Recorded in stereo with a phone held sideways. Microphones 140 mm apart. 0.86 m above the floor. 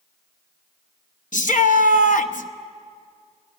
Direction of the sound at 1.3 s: 65° left (ahead or behind).